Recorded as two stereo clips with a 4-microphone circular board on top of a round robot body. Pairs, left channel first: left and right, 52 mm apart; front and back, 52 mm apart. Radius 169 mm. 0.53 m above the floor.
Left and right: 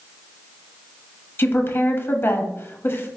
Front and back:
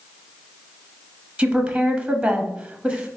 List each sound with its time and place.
1.4 s a woman speaking: 115° left, 1.1 m